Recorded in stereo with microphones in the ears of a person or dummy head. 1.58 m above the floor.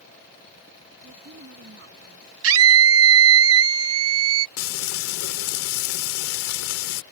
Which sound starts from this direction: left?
Frying, at 4.6 s.